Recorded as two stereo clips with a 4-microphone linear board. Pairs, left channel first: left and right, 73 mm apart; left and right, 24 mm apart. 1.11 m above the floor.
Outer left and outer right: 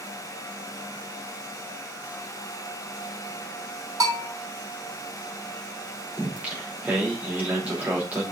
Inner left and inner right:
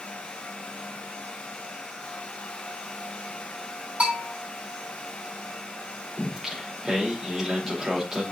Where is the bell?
55° right (ahead or behind), 3 m.